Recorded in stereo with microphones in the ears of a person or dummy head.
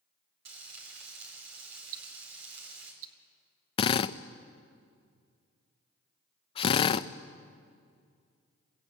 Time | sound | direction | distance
0.5 | frying | 65° right (ahead or behind) | 4 m
1.9 | ticking | 85° right | 1.0 m
3.8 | a drill | 35° left (ahead or behind) | 0.5 m